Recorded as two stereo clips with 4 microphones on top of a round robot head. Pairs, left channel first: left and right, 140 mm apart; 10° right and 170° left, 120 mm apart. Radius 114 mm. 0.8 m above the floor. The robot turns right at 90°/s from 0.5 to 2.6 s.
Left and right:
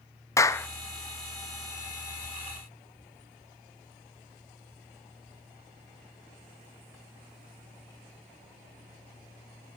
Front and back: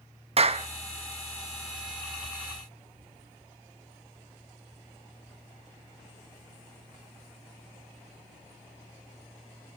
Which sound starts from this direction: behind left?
A clap, at 0.4 s.